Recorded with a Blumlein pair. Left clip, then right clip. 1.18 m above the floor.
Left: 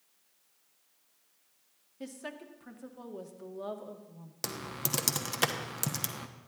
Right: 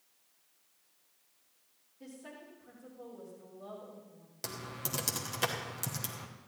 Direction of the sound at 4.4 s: 20° left.